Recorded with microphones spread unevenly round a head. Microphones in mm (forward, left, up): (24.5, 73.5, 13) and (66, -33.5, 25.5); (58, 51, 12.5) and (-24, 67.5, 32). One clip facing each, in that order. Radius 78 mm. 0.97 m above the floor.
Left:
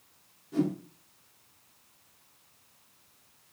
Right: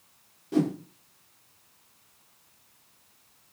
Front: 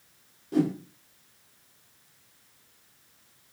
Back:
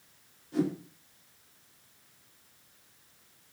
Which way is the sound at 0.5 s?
55° right.